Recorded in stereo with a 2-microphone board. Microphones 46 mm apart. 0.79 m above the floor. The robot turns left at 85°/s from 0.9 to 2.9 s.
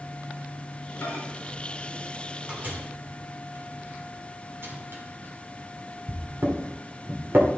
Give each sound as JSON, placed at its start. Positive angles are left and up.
{"t": 1.0, "sound": "a microwave", "side_deg": 70, "distance_m": 2.5}